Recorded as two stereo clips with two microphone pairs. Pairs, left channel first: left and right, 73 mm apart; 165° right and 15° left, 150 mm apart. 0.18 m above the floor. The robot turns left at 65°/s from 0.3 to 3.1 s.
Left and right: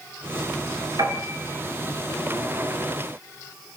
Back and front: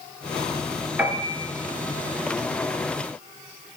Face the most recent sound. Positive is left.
turn(degrees=155)